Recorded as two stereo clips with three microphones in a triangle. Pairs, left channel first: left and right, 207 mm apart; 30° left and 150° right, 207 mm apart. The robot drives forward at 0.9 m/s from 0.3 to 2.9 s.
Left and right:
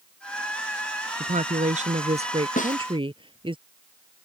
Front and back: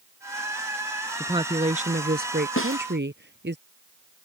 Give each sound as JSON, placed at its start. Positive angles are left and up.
{"t": 1.2, "sound": "a woman speaking", "azimuth_deg": -90}
{"t": 2.6, "sound": "a snare drum", "azimuth_deg": 40}